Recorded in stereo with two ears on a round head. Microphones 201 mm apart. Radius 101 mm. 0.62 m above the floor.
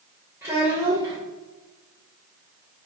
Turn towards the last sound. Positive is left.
turn(degrees=-10)  # may be behind; listen again after turning